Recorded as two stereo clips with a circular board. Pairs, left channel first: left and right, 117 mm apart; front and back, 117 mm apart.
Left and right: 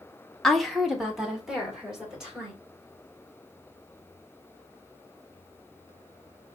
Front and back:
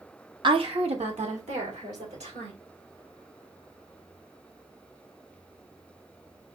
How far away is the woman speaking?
About 0.8 m.